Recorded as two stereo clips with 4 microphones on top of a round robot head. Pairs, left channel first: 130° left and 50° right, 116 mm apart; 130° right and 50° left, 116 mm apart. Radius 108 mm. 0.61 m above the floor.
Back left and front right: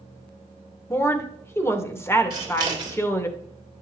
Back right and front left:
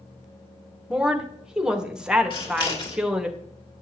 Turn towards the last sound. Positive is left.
turn(degrees=-95)